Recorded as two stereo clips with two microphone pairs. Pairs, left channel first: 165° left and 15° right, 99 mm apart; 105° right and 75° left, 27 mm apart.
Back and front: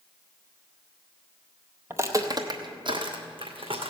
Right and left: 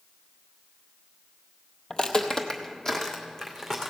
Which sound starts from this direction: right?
Footsteps, at 1.9 s.